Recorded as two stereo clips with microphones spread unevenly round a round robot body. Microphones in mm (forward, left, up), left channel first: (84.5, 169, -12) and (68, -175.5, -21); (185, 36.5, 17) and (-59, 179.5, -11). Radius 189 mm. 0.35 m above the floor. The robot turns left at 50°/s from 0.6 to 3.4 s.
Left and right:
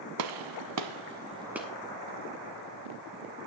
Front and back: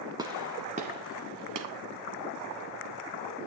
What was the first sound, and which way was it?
A gunshot, 130° right.